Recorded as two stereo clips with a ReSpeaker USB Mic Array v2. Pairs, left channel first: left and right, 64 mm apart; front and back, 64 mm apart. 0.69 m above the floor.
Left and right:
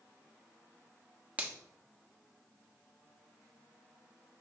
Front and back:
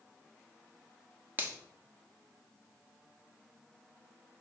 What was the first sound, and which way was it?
A finger snap, 145° right.